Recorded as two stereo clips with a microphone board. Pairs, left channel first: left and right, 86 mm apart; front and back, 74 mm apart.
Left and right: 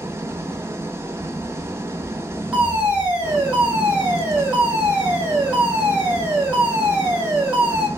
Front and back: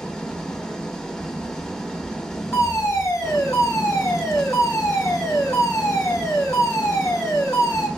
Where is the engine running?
75° right, 0.7 m.